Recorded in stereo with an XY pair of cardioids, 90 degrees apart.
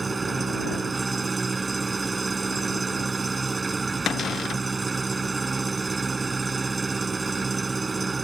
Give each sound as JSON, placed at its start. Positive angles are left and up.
{"t": 0.0, "sound": "an engine running", "azimuth_deg": -30}
{"t": 4.1, "sound": "a cupboard door", "azimuth_deg": 65}